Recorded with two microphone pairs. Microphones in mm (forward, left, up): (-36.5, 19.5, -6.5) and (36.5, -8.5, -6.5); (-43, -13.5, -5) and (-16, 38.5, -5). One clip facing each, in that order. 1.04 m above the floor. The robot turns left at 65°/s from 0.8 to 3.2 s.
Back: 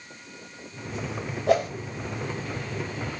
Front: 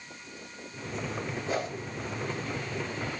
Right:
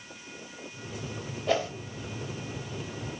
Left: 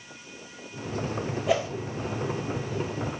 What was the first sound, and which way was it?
A whoosh, 145° left.